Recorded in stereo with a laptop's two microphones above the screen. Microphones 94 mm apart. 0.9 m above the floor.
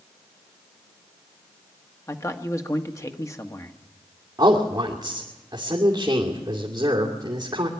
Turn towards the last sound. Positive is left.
turn(degrees=-50)  # may be behind; listen again after turning